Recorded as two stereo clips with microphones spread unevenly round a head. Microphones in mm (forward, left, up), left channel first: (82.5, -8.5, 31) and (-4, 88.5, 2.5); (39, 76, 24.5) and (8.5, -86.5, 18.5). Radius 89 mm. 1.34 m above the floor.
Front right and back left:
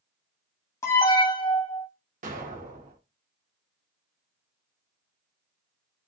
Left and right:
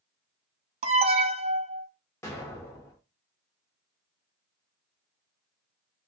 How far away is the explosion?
About 0.9 m.